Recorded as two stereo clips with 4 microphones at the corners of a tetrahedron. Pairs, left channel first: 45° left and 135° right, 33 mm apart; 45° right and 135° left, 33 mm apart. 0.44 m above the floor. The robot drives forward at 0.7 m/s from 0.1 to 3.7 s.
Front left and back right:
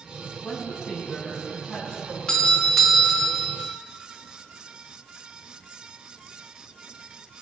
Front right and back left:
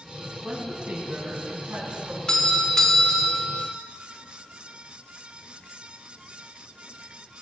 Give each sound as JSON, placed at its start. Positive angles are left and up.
{"t": 0.4, "sound": "a woman speaking", "azimuth_deg": 110, "distance_m": 3.5}
{"t": 2.3, "sound": "a doorbell", "azimuth_deg": -5, "distance_m": 1.2}